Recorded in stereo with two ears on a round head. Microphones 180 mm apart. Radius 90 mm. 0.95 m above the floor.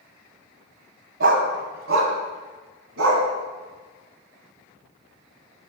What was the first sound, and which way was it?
A dog barking, 60° right (ahead or behind).